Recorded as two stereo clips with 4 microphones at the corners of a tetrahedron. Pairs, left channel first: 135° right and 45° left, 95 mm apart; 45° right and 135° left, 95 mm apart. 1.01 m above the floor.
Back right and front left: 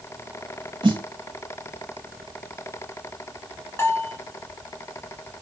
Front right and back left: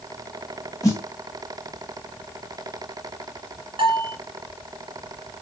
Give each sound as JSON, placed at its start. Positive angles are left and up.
{"t": 0.8, "sound": "a snare drum", "azimuth_deg": 10, "distance_m": 1.8}
{"t": 3.8, "sound": "a bell", "azimuth_deg": 165, "distance_m": 1.5}